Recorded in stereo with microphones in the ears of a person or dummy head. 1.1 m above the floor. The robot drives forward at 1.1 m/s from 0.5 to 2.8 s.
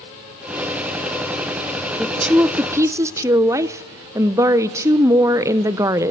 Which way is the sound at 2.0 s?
5° right (ahead or behind).